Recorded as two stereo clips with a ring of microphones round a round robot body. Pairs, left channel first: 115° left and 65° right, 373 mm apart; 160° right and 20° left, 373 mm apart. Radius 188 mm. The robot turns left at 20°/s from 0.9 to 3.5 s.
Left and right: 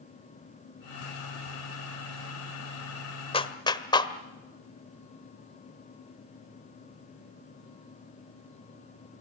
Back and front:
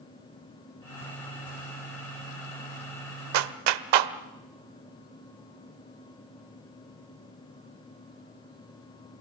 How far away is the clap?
About 1.3 m.